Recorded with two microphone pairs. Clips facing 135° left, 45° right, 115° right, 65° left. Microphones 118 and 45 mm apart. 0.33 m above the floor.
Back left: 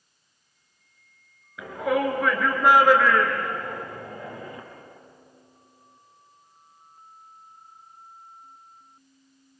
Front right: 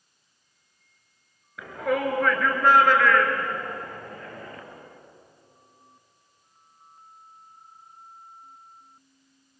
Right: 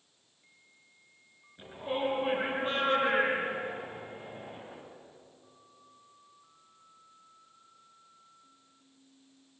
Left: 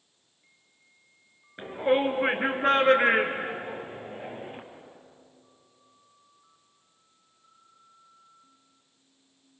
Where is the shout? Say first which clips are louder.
Back left 2 dB, left 9 dB; 45° left, 4.5 m; by 4.6 s 60° left, 5.5 m.